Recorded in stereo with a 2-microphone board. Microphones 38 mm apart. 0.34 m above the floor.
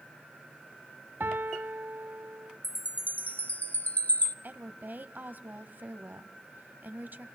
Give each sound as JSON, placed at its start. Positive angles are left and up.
{"t": 1.2, "sound": "a piano", "side_deg": -65, "distance_m": 0.7}
{"t": 2.6, "sound": "a chime", "side_deg": 50, "distance_m": 1.3}
{"t": 4.4, "sound": "a woman speaking", "side_deg": -55, "distance_m": 2.0}